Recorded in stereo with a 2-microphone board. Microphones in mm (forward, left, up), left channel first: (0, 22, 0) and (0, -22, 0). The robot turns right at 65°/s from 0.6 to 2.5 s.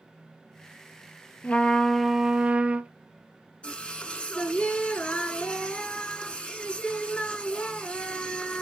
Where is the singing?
25° left (ahead or behind), 1.1 m.